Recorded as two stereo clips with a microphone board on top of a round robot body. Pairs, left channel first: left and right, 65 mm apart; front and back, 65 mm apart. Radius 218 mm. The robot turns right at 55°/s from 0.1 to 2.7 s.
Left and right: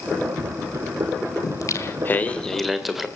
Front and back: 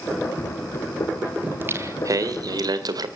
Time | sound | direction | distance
1.4 | singing | 115° left | 2.5 m